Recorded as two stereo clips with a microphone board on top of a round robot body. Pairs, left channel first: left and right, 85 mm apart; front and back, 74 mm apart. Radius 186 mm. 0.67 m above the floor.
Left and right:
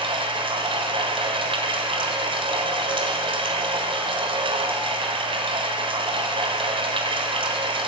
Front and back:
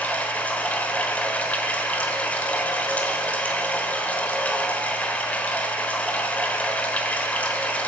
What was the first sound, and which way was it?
Running water, 70° right.